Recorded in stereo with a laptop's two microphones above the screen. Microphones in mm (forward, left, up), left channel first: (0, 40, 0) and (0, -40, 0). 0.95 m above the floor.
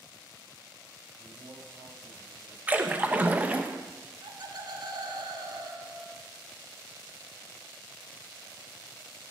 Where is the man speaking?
65° right (ahead or behind), 5.5 m.